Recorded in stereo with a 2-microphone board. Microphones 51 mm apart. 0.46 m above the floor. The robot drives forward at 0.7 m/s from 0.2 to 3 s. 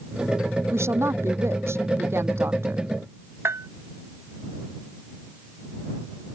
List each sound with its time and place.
0.7 s a woman speaking: 60° right (ahead or behind); by 2.9 s 55° right (ahead or behind)
3.5 s a bell: 55° right (ahead or behind)